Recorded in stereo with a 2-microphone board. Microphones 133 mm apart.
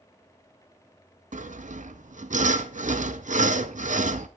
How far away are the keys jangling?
I don't hear keys jangling.